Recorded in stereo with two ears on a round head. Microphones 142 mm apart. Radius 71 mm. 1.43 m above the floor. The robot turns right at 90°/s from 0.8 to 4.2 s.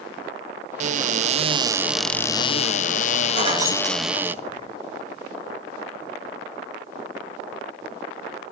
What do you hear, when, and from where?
0.8 s a cupboard door: 110° right, 0.5 m; by 4.3 s 165° right, 0.5 m
3.4 s keys jangling: 45° right (ahead or behind), 4 m; by 4.7 s 30° left (ahead or behind), 4 m